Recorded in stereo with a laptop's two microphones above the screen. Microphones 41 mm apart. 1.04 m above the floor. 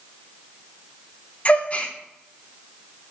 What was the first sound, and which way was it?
A gasp, 30° left (ahead or behind).